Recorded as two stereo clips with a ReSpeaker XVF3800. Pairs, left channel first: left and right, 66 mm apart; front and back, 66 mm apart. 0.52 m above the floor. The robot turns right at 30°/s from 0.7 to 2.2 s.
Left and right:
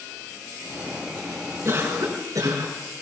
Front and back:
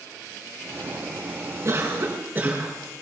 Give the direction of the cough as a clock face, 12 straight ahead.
5 o'clock.